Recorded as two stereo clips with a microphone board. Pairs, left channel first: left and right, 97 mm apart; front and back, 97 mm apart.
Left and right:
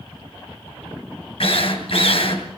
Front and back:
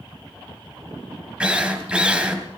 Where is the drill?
100° left, 2.5 m.